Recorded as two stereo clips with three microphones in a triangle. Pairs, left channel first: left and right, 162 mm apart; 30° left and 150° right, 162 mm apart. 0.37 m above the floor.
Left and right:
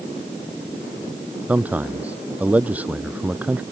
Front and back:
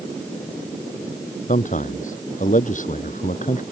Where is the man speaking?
10° right.